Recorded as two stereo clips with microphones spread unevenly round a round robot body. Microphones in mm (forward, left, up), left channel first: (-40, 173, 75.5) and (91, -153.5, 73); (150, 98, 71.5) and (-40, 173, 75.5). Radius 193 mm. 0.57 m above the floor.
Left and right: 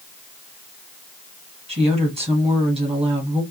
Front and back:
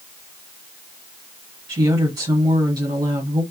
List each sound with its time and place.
1.7 s a woman speaking: 135° right, 1.4 m